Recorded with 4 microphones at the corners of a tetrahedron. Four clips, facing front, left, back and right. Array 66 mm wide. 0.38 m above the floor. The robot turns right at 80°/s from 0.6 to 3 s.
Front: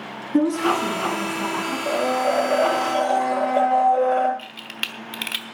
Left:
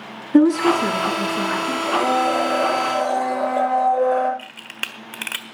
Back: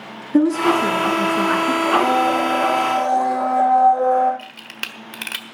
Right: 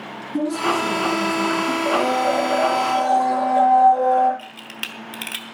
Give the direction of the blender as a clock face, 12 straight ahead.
2 o'clock.